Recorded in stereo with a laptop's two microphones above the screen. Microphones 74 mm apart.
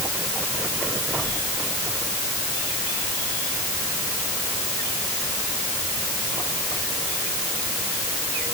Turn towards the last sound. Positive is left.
No sound to turn to.